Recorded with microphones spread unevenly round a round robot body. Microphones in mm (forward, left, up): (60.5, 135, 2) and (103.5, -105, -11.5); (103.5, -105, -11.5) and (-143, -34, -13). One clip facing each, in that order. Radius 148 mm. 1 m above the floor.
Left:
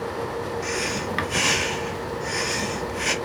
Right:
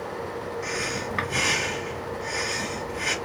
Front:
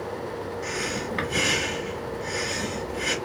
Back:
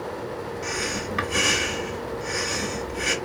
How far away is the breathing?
About 1.2 m.